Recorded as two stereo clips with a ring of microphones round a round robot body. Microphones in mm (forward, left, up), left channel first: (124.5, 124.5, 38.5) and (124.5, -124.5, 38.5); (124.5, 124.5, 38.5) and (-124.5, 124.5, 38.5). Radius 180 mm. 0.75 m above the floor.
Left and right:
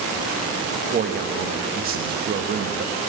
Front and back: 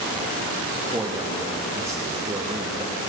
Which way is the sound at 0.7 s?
110° right.